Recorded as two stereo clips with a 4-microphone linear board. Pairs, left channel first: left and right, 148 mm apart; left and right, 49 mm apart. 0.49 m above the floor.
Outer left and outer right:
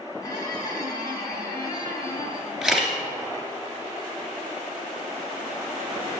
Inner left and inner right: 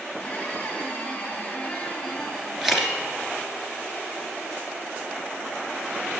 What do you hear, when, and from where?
0.2 s a squeak: 25° left (ahead or behind), 1.3 m
2.6 s a camera shutter: 5° right (ahead or behind), 1.8 m